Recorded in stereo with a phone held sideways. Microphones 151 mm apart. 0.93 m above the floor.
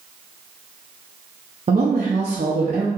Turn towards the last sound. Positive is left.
turn(degrees=-55)  # may be behind; listen again after turning